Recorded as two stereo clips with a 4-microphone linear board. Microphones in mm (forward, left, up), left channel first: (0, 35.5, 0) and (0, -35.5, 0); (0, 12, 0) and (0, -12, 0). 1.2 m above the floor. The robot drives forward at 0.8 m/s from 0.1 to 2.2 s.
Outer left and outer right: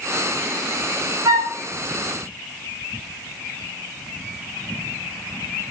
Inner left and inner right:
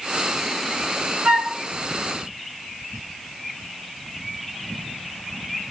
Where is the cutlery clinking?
I don't hear cutlery clinking.